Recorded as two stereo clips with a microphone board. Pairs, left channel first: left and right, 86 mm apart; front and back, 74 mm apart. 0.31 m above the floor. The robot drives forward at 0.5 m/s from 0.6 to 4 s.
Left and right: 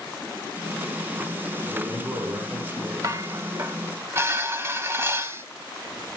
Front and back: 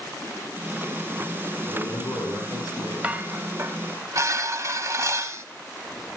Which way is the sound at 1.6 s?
25° right.